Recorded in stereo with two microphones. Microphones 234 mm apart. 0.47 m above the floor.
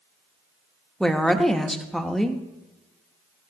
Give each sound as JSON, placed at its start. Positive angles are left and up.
{"t": 1.0, "sound": "a woman speaking", "side_deg": 0, "distance_m": 0.8}